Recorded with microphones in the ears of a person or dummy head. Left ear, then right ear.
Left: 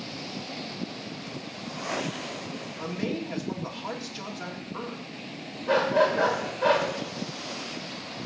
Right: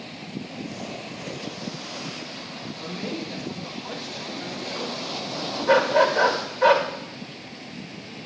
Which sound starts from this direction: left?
A man speaking, at 2.8 s.